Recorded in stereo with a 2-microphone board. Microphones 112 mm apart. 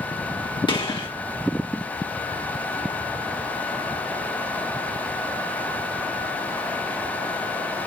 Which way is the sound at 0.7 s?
40° left (ahead or behind).